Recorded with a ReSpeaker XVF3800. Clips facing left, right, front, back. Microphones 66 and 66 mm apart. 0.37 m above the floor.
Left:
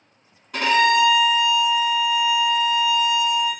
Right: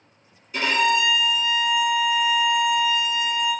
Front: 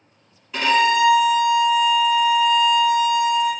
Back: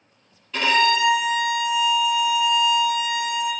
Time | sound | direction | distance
0.5 | a violin | 80° left | 1.0 m